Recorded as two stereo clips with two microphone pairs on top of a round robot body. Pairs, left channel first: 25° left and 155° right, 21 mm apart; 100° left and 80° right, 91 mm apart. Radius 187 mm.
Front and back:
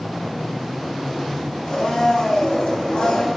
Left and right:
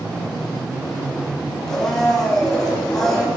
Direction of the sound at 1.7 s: 15° left.